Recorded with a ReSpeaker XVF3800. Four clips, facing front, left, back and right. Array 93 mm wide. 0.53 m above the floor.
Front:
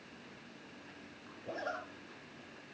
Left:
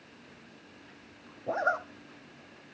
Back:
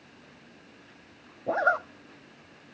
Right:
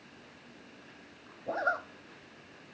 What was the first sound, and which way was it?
A zipper, 165° left.